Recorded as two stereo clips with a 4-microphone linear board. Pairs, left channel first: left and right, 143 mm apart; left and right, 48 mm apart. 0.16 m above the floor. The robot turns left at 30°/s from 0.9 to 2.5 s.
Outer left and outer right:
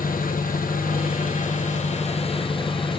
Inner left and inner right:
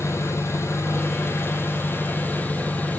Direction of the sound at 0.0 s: 85° left.